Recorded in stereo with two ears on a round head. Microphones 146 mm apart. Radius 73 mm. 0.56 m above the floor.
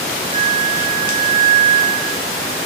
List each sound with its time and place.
0.3 s a flute: 50° right (ahead or behind), 7 m